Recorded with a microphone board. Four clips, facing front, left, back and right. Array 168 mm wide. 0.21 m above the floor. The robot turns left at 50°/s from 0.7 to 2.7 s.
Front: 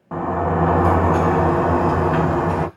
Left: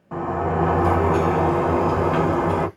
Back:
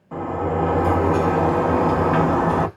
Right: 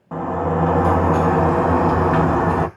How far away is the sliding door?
About 0.9 m.